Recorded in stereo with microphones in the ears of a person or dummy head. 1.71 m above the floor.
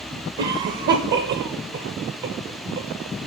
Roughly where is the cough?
Right.